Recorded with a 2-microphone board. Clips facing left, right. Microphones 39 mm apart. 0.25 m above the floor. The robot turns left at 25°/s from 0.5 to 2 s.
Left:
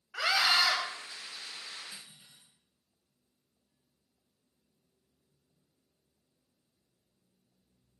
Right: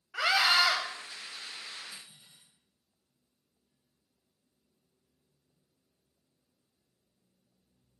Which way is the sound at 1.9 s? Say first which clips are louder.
Even; 60° left (ahead or behind).